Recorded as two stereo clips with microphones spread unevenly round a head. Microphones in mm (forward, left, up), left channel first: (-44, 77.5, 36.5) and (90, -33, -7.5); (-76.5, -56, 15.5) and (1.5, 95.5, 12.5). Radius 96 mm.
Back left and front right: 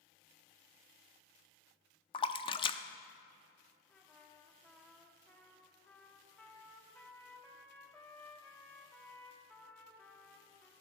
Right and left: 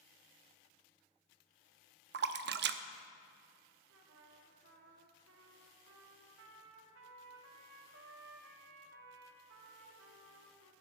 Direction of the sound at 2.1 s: 85° left.